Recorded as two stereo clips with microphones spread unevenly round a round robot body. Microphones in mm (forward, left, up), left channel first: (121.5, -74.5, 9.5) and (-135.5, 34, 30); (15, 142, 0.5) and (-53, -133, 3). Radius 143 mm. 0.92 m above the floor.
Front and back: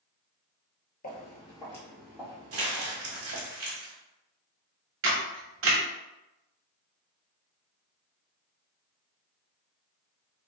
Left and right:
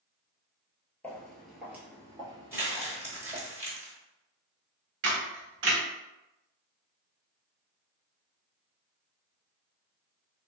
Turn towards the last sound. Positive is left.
turn(degrees=-155)